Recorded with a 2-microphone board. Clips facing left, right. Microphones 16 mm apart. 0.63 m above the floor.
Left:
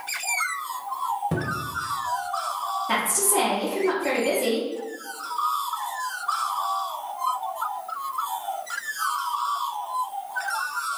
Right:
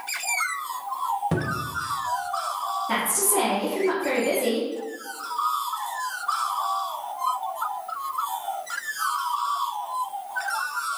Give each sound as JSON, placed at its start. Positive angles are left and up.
{"t": 1.3, "sound": "a cupboard door", "side_deg": -25, "distance_m": 0.6}
{"t": 2.9, "sound": "a woman speaking", "side_deg": 25, "distance_m": 1.3}